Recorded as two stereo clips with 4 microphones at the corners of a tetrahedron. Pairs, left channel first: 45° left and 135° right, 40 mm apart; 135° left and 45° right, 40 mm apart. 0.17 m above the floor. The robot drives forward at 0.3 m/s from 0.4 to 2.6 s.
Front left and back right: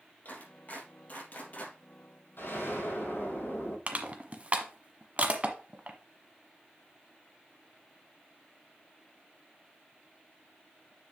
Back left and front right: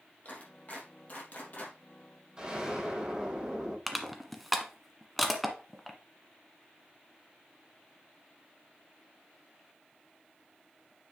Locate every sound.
0.2 s a clap: 85° left, 4 m; by 1.8 s 90° left, 4 m
2.4 s an explosion: 30° left, 5 m
3.9 s crushing: 135° right, 1.2 m